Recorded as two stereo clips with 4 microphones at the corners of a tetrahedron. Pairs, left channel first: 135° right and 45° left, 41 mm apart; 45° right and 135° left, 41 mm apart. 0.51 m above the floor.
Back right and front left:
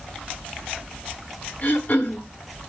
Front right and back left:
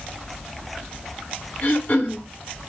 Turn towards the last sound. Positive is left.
turn(degrees=-85)